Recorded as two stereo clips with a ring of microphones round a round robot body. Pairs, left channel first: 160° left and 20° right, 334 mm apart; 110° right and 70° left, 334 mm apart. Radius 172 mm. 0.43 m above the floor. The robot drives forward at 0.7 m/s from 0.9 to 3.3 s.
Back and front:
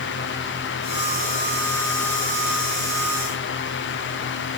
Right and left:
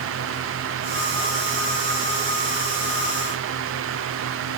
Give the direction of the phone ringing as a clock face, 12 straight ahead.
No phone ringing in this recording.